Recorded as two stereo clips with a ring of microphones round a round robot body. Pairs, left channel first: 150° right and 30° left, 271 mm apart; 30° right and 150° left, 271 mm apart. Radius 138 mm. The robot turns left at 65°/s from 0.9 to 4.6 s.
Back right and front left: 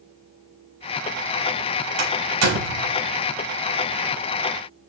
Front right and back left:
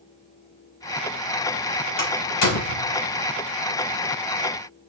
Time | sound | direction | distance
2.0 | a door slam | 30° left | 4.5 m